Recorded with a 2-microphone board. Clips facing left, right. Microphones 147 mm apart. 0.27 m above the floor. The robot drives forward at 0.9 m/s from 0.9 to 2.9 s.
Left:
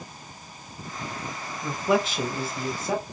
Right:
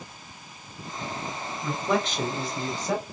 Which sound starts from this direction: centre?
A man speaking, at 1.6 s.